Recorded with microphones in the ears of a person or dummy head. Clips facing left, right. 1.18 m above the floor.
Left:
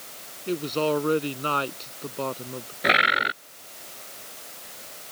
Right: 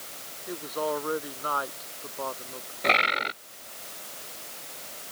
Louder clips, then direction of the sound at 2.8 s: Left 2 dB; 20° left (ahead or behind).